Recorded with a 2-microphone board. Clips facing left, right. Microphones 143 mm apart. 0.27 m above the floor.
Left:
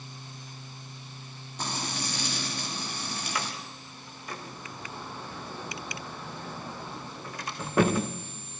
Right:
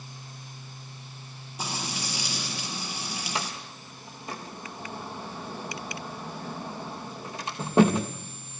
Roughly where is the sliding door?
Right.